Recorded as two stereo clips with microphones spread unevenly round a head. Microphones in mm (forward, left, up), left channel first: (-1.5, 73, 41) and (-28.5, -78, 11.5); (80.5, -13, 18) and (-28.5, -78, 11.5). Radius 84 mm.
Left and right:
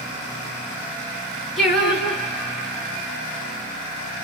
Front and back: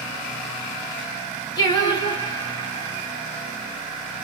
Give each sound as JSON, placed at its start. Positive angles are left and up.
{"t": 1.6, "sound": "singing", "azimuth_deg": 5, "distance_m": 0.9}